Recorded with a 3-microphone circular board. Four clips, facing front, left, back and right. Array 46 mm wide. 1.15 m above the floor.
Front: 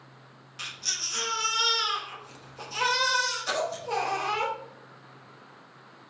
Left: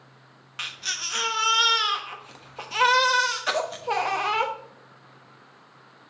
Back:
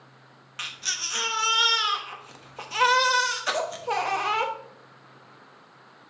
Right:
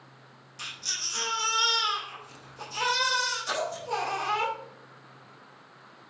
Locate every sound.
0.6 s a baby crying: 125° left, 1.1 m